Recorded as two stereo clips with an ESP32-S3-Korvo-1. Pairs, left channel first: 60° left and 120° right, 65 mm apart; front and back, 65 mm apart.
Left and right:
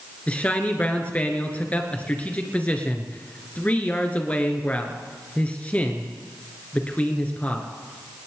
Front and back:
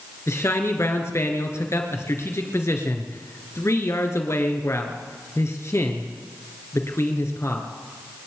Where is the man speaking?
Straight ahead, 2.5 m.